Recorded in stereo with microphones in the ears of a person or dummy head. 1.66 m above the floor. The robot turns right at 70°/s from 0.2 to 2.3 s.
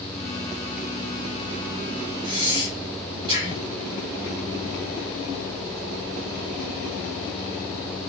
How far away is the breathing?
About 1.7 m.